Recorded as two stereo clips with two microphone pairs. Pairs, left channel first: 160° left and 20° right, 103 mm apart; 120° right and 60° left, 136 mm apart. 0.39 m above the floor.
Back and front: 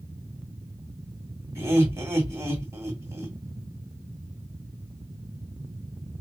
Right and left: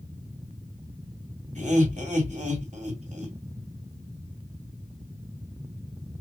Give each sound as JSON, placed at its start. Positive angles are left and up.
{"t": 1.6, "sound": "laughter", "azimuth_deg": 40, "distance_m": 2.0}